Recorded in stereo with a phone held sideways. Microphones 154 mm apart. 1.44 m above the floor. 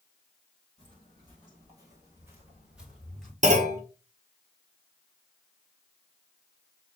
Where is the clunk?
55° right (ahead or behind), 0.8 m.